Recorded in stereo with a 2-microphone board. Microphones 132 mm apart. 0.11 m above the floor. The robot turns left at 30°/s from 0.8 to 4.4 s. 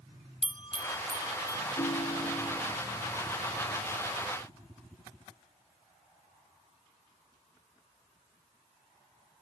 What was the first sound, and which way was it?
A bell, 40° left (ahead or behind).